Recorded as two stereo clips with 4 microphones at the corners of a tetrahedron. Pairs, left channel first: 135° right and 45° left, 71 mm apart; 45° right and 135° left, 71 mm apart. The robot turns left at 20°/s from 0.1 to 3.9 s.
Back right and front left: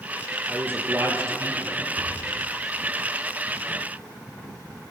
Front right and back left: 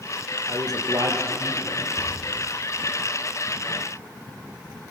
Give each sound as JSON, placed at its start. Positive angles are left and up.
{"t": 0.5, "sound": "a man speaking", "azimuth_deg": 110, "distance_m": 5.0}
{"t": 2.0, "sound": "a thud", "azimuth_deg": 55, "distance_m": 9.5}